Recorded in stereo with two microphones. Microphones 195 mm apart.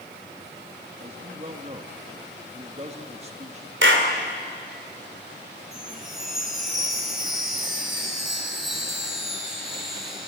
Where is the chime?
Centre (ahead or behind), 4.5 m.